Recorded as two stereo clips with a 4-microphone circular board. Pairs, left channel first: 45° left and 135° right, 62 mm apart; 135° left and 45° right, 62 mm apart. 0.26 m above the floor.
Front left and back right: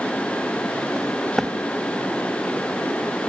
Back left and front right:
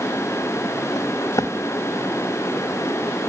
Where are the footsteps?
135° left, 2 m.